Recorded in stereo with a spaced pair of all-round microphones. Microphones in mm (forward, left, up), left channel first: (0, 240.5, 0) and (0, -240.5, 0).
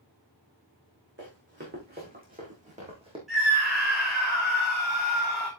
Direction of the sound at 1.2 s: 25° right (ahead or behind).